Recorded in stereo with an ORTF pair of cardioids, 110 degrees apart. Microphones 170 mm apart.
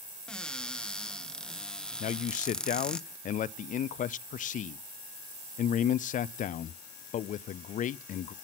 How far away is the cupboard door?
About 1.1 m.